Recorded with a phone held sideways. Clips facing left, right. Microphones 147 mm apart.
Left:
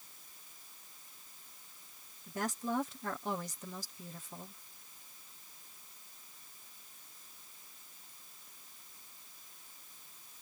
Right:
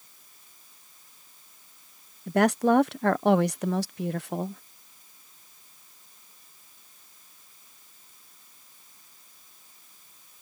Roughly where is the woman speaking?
Right.